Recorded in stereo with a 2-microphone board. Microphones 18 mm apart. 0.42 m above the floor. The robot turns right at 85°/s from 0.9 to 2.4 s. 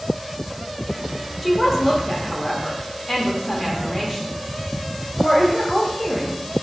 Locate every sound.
1.4 s a woman speaking: 5° left (ahead or behind), 0.7 m; by 6.4 s 25° left (ahead or behind), 0.7 m